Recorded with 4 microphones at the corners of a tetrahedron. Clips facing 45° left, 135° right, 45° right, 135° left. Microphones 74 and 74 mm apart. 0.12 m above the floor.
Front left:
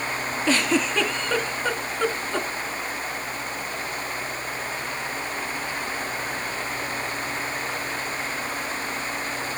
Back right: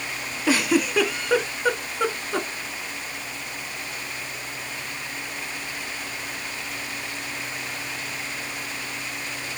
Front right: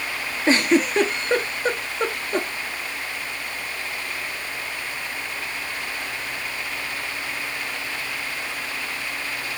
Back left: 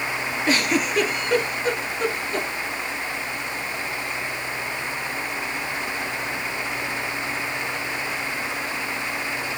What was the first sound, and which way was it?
A giggle, 65° right.